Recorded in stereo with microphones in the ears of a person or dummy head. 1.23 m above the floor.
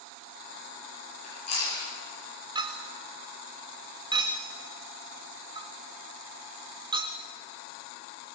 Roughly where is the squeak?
I don't hear a squeak.